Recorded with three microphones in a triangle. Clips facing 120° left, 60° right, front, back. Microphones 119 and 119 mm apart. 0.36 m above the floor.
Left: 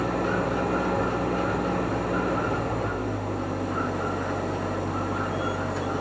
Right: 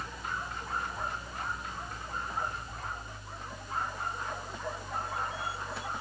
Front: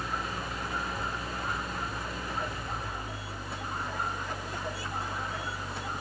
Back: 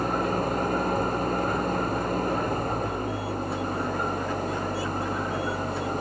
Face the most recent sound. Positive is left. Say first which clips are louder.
# left 15 dB, back 10 dB
turn(degrees=140)